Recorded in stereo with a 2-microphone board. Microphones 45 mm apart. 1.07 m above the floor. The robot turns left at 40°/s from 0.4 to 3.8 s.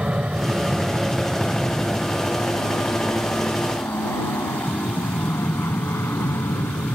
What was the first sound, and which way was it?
An aircraft, 25° right (ahead or behind).